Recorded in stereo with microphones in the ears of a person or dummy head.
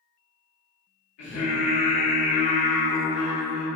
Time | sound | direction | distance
1.2 | singing | 75° left (ahead or behind) | 1.1 m